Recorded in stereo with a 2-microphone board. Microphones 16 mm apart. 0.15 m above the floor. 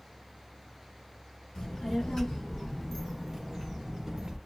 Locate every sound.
1.6 s a child speaking: 45° left (ahead or behind), 1.6 m; by 4.4 s 30° right (ahead or behind), 1.2 m